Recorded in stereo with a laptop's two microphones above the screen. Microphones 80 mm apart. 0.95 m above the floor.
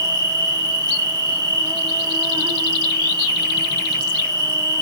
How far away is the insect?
About 1.4 m.